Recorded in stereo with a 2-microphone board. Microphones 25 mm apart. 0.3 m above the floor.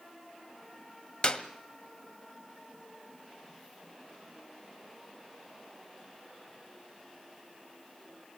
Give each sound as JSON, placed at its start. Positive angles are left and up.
{"t": 1.2, "sound": "a clap", "side_deg": 40, "distance_m": 1.5}